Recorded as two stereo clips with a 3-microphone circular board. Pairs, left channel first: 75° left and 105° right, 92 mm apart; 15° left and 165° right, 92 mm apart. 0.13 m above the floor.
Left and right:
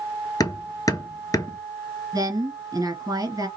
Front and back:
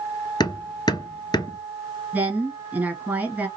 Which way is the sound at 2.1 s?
105° right.